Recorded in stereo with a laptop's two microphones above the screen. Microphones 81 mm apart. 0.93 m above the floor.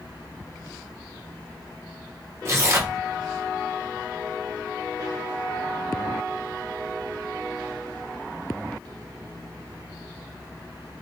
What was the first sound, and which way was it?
Tearing paper, 35° right (ahead or behind).